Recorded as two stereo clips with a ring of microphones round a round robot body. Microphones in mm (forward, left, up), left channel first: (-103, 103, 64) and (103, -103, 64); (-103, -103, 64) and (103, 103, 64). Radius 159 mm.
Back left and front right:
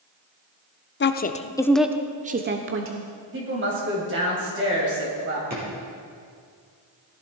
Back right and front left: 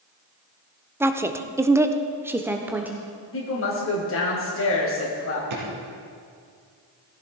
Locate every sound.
1.0 s a woman speaking: 120° left, 1.1 m; by 3.1 s 40° right, 1.3 m
3.3 s a woman speaking: 90° right, 3 m
5.5 s a drawer: 15° left, 6 m